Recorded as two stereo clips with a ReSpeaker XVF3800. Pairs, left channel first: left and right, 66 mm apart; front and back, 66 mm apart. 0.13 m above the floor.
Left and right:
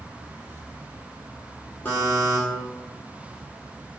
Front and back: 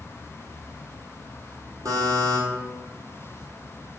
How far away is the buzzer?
About 1.4 m.